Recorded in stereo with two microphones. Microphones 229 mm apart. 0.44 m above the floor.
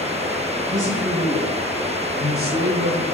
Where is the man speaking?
35° right (ahead or behind), 6.5 m; by 3.0 s 50° right (ahead or behind), 3.5 m.